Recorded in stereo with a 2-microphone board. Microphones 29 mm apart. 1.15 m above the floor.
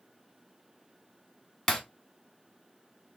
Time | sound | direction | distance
1.7 | breaking glass | 10° left (ahead or behind) | 1.2 m